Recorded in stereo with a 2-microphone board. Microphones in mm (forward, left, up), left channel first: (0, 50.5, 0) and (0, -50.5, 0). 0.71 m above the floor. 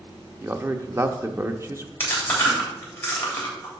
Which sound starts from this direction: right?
A man speaking, at 0.4 s.